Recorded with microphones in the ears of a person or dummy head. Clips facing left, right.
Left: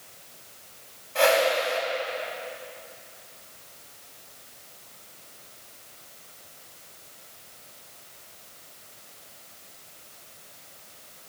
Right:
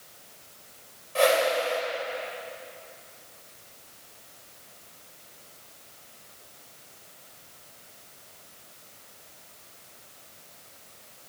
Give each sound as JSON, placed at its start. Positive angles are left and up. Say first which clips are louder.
{"t": 1.1, "sound": "a whoosh", "louder": "left 1 dB", "side_deg": -55, "distance_m": 2.5}